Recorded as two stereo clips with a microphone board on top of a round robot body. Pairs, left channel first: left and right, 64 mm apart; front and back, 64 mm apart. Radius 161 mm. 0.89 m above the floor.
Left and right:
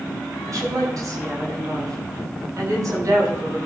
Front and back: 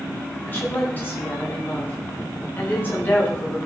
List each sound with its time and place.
0.5 s a woman speaking: 60° right, 9.5 m